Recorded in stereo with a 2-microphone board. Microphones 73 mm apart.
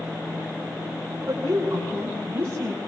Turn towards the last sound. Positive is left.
turn(degrees=-30)  # may be behind; listen again after turning